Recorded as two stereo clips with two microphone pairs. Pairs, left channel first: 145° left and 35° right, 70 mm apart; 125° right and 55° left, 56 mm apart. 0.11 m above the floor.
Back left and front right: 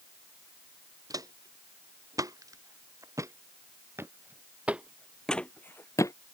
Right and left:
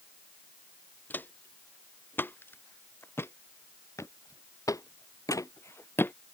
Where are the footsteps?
65° right; by 6.1 s 175° right.